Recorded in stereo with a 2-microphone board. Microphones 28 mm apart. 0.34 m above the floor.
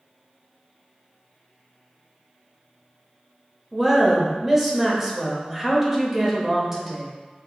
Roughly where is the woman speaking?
Centre.